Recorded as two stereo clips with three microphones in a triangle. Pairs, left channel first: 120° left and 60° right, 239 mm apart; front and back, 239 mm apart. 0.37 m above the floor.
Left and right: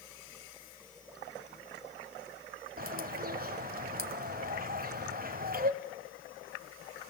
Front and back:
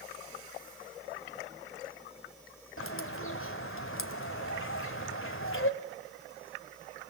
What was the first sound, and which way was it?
A bird, 15° right.